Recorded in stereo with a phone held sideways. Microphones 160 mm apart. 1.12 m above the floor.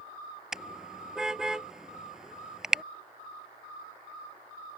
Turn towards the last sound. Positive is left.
turn(degrees=-5)  # may be behind; listen again after turning